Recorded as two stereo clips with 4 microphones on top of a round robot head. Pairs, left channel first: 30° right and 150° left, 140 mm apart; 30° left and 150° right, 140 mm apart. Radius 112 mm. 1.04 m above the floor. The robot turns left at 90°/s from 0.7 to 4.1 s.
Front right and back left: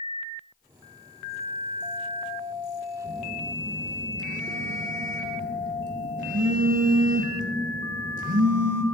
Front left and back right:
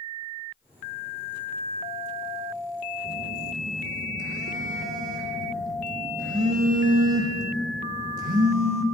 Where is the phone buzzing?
85° right, 1.0 m; by 8.8 s straight behind, 1.0 m.